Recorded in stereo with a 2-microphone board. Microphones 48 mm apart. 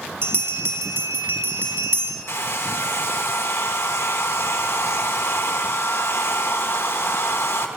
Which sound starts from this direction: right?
A bell, at 0.2 s.